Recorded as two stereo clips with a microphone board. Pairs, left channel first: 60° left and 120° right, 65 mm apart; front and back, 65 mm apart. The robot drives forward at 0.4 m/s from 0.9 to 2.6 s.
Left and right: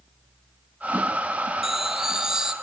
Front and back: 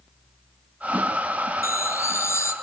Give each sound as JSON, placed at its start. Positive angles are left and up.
{"t": 1.6, "sound": "a chime", "azimuth_deg": -35, "distance_m": 2.5}